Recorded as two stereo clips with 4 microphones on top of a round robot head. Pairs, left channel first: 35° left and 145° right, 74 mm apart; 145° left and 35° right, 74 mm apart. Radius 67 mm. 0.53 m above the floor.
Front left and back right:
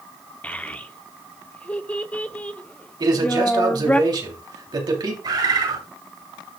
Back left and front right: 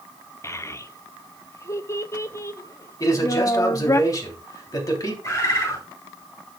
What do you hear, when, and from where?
0.4 s a child speaking: 105° left, 0.8 m
3.0 s a man speaking: 175° right, 3 m
5.2 s a bird: 170° right, 3 m